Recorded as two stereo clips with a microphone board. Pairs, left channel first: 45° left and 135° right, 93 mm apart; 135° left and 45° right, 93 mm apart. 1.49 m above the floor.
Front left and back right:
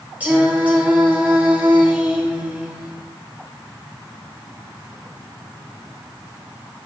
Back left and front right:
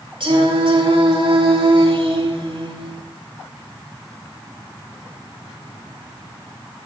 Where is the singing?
60° right, 7 m.